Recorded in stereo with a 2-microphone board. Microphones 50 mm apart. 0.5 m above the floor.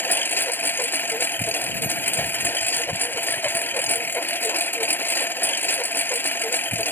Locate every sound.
0.0 s a lawn mower: 45° left (ahead or behind)